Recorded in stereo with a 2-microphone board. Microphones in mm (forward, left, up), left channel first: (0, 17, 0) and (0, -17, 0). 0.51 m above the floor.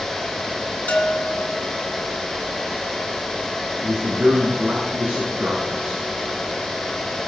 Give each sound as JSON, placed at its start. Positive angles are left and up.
{"t": 0.9, "sound": "a bell", "side_deg": 65, "distance_m": 3.0}
{"t": 3.8, "sound": "a man speaking", "side_deg": -65, "distance_m": 5.5}